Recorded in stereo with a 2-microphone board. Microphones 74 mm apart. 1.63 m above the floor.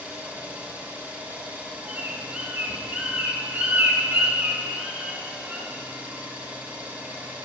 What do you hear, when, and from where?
0.0 s an engine running: 20° right (ahead or behind), 2 m
1.9 s a bird: 20° right (ahead or behind), 3.5 m